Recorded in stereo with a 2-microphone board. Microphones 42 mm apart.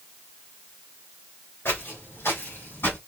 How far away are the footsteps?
About 3.5 m.